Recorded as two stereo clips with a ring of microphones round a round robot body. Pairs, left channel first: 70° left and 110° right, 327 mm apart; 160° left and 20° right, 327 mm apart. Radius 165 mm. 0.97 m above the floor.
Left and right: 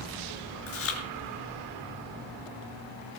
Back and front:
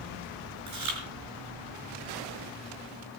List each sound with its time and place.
0.7 s chewing: 20° left, 5 m